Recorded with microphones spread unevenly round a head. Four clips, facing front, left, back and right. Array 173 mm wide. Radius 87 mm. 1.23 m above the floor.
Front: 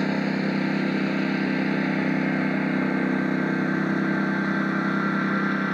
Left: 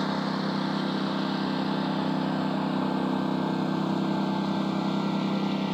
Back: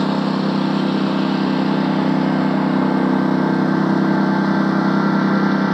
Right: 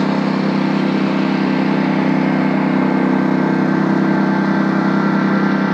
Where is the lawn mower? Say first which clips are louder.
Right 12 dB, back 6 dB; 105° right; by 5.7 s 115° right.